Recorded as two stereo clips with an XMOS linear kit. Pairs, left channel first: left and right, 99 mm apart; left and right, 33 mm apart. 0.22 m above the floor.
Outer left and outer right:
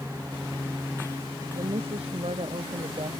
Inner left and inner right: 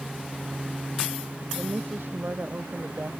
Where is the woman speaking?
80° right; by 3.1 s 75° right (ahead or behind).